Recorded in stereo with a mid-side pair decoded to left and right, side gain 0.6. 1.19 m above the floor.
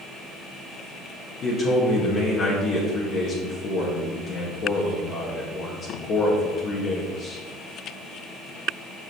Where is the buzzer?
No buzzer in this recording.